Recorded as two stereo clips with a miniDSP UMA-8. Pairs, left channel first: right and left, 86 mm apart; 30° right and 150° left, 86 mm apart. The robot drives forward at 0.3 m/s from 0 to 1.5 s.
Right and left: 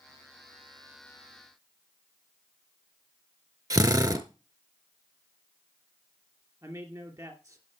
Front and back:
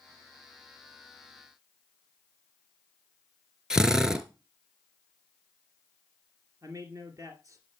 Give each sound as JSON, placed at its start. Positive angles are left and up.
{"t": 3.7, "sound": "a drill", "azimuth_deg": 70, "distance_m": 0.9}
{"t": 6.6, "sound": "a man speaking", "azimuth_deg": 120, "distance_m": 2.5}